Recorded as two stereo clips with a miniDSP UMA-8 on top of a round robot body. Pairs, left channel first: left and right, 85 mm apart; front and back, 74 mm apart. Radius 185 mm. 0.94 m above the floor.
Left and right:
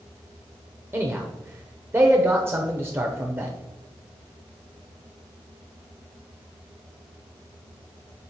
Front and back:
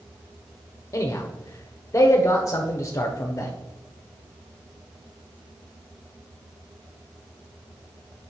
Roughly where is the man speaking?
Ahead right.